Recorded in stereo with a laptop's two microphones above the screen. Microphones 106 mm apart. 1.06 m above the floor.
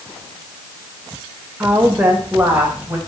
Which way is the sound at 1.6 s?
15° right (ahead or behind).